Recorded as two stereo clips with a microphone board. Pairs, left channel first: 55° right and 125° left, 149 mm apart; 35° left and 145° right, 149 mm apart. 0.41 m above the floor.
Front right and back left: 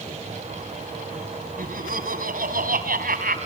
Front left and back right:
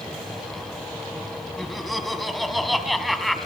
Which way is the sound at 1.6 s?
125° left.